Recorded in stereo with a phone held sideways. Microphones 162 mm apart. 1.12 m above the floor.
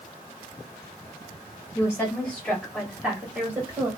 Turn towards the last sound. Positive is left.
turn(degrees=-20)  # may be behind; listen again after turning